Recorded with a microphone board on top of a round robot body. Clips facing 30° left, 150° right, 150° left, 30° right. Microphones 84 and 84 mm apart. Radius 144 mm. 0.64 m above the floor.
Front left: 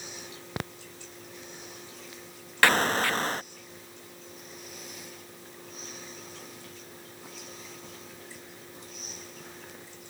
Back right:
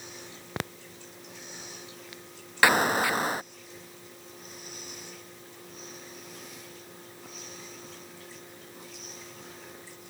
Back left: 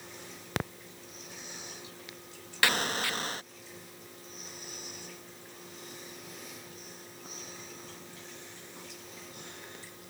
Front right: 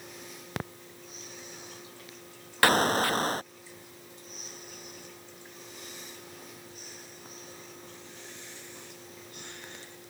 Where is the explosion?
75° right.